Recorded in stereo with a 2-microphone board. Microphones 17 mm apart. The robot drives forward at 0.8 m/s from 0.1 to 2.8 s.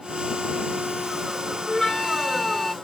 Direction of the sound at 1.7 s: 15° left (ahead or behind).